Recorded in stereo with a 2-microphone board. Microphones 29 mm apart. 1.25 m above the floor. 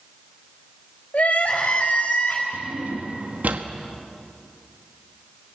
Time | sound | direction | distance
1.1 | crying | 50° left (ahead or behind) | 4 m
2.5 | a drawer | 60° right (ahead or behind) | 1.3 m